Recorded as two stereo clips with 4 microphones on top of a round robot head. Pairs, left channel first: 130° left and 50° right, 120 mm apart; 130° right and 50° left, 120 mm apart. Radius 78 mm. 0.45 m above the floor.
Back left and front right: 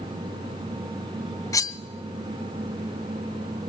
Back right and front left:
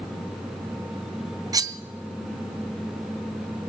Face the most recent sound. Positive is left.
turn(degrees=85)